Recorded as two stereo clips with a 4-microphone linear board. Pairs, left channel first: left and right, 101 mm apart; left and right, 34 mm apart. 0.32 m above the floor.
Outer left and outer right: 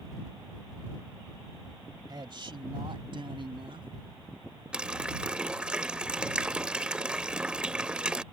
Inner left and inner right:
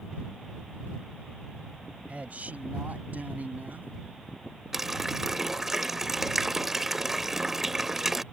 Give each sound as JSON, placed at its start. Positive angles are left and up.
{"t": 2.1, "sound": "a man speaking", "side_deg": -45}
{"t": 4.7, "sound": "a running tap", "side_deg": -10}